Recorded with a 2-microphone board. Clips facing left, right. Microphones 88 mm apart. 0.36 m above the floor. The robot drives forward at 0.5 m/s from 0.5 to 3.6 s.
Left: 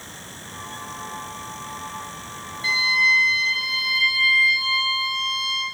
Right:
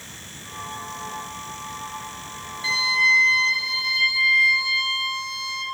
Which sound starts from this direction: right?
A violin, at 2.6 s.